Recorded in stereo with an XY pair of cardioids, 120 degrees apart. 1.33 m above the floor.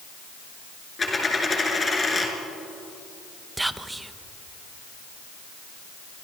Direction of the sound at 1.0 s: 25° left.